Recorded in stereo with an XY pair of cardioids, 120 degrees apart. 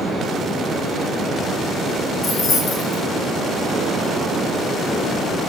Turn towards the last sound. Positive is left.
turn(degrees=60)